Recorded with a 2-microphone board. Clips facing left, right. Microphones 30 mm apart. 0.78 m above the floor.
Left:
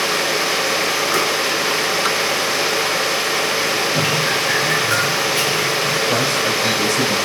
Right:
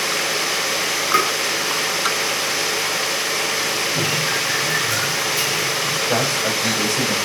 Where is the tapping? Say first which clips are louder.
Right 4 dB; 25° right (ahead or behind), 4.5 m.